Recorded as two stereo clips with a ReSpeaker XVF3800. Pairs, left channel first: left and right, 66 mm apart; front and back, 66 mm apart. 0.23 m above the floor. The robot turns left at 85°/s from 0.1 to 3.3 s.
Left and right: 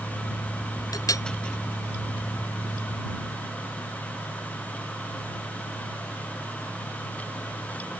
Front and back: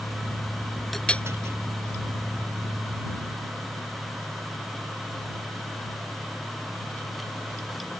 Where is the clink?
90° left; by 1.2 s 60° left.